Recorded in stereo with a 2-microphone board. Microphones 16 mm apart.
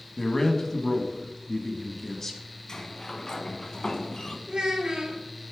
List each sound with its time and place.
0.2 s a man speaking: 25° left (ahead or behind), 1.1 m
2.7 s a sliding door: 45° left (ahead or behind), 0.9 m
4.5 s a child speaking: 70° right (ahead or behind), 3 m